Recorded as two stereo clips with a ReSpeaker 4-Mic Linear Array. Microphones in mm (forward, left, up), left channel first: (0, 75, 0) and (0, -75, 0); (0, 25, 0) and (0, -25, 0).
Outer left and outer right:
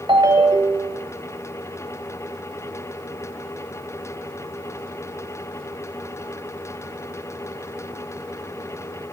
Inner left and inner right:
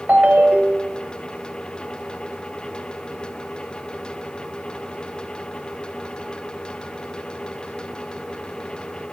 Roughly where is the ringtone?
Right.